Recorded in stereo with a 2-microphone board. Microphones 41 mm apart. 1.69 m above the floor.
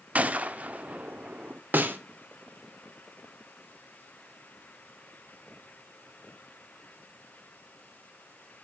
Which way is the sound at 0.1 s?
35° right (ahead or behind).